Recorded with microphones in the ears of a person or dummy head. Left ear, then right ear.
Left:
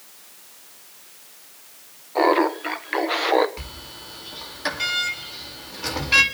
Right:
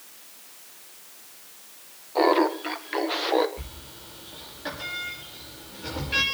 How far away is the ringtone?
I don't hear a ringtone.